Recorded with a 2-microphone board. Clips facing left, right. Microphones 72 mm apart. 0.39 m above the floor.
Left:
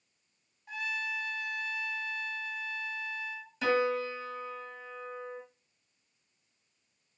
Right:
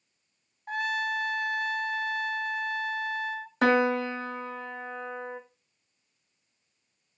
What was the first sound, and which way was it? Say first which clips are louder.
A trumpet: right 7 dB; 55° right (ahead or behind).